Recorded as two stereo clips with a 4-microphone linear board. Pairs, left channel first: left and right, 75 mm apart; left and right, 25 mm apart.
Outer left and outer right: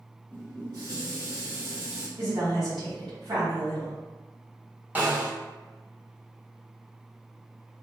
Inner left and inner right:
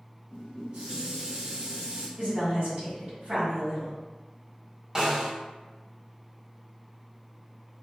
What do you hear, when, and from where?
0.3 s dishes clattering: 55° right (ahead or behind), 1.8 m
2.2 s a woman speaking: 65° right (ahead or behind), 1.7 m
5.0 s a snare drum: 20° right (ahead or behind), 0.9 m